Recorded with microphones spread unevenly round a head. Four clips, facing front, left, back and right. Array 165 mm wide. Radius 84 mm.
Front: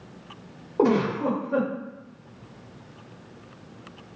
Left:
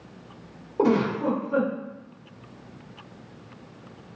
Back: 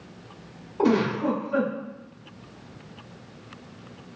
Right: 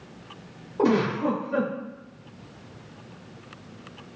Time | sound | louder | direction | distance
0.8 | a giggle | even, even | 20° left | 1.0 m